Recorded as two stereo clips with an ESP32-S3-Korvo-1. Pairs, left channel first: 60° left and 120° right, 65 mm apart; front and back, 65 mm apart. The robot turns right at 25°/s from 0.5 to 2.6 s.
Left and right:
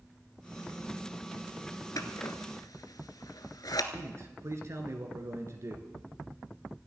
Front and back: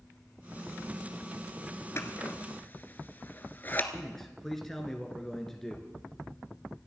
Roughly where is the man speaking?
Right.